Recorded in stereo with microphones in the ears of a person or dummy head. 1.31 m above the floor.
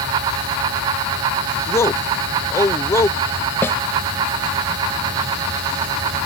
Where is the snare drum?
15° left (ahead or behind).